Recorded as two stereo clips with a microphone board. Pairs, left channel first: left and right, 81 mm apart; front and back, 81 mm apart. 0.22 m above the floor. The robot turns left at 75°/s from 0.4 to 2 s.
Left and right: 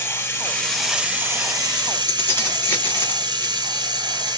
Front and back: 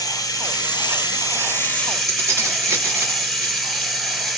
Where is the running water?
30° left, 0.9 m; by 4.4 s 90° right, 0.9 m.